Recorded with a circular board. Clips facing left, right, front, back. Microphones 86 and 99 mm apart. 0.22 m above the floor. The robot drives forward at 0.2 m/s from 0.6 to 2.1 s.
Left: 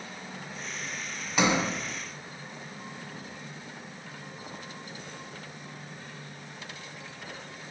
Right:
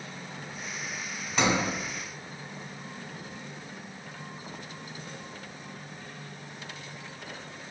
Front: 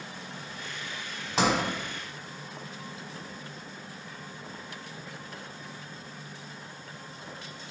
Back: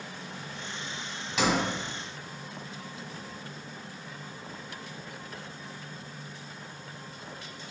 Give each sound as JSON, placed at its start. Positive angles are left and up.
{"t": 1.4, "sound": "a sliding door", "azimuth_deg": 15, "distance_m": 0.6}